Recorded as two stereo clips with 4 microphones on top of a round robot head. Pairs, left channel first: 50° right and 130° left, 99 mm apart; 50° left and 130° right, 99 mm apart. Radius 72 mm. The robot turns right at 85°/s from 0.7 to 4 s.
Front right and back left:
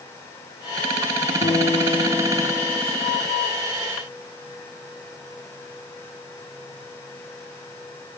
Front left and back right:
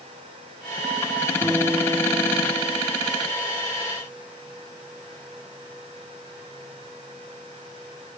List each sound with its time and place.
1.4 s a guitar: 70° right, 6.5 m; by 2.8 s 50° left, 6.5 m